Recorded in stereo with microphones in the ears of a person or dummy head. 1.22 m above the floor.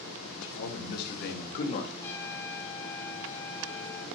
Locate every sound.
0.2 s a man speaking: 75° left (ahead or behind), 4 m; by 1.9 s 30° left (ahead or behind), 2.5 m
2.0 s a trumpet: 15° left (ahead or behind), 4 m